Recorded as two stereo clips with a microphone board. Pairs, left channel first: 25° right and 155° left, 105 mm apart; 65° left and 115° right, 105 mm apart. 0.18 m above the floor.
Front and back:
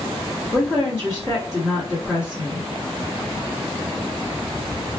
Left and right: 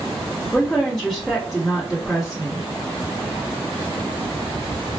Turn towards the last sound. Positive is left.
turn(degrees=-20)